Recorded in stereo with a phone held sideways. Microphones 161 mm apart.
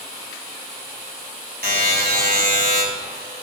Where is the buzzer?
75° right (ahead or behind), 3.5 m.